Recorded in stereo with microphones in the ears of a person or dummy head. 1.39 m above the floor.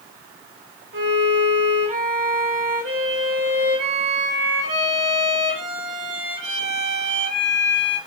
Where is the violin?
45° right (ahead or behind), 1.1 m.